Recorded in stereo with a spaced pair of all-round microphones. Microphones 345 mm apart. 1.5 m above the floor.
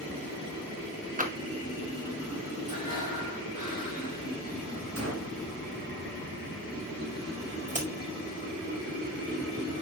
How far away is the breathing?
About 5.5 m.